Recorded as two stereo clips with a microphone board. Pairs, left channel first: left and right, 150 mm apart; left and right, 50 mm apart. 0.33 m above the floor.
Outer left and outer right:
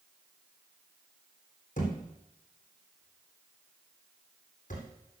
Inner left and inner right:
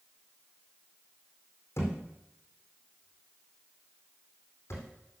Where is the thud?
60° left (ahead or behind), 3.5 m.